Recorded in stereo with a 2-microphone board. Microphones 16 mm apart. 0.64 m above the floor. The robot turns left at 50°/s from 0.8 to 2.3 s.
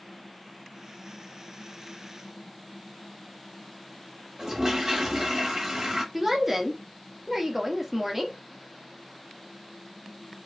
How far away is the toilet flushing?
About 0.8 m.